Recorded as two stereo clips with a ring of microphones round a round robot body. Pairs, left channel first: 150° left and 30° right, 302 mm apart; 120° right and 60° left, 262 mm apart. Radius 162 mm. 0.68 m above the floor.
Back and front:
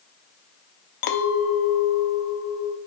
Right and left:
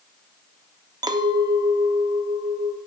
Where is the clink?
135° left, 0.8 m.